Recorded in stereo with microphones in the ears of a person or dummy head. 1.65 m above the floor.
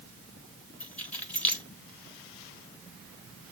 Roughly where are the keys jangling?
Centre.